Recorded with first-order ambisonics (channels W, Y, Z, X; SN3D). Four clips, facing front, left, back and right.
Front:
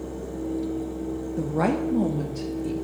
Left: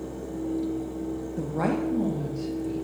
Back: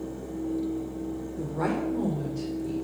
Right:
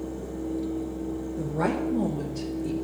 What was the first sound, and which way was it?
A woman speaking, 30° left.